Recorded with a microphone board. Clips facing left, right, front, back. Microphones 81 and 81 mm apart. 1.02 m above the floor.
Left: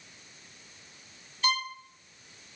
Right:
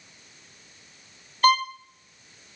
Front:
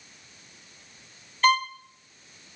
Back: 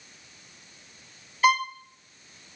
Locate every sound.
1.4 s a violin: 100° right, 1.0 m